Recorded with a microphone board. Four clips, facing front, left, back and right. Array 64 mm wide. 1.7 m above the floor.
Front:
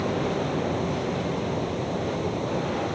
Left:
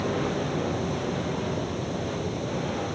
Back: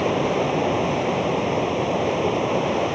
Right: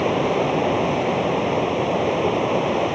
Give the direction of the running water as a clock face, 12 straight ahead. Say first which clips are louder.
Right 8 dB, back 5 dB; 4 o'clock.